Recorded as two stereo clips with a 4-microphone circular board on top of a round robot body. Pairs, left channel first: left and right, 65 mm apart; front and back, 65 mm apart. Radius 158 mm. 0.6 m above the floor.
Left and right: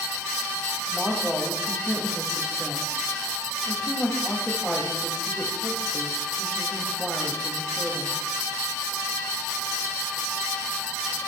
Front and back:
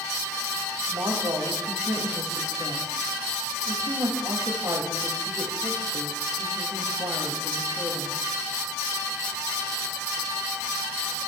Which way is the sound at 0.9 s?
175° right.